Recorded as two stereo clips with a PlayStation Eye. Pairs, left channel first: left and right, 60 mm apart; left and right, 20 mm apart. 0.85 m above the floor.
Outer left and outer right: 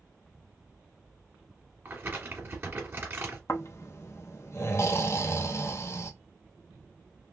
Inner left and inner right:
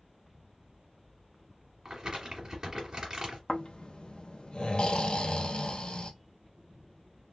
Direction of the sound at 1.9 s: 35° right (ahead or behind).